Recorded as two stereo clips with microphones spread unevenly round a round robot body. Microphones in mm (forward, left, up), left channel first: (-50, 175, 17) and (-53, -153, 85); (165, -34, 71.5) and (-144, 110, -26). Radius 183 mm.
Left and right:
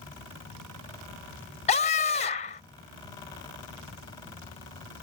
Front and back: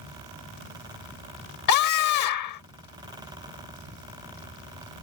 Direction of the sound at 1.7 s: 20° left.